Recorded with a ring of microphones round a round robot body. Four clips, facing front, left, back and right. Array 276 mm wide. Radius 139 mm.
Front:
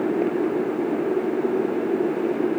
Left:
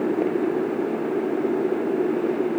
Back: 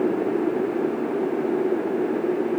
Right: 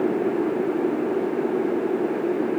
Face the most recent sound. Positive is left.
No sound to turn to.